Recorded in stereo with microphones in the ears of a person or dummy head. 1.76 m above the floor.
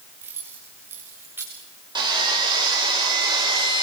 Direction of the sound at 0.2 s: 10° right (ahead or behind).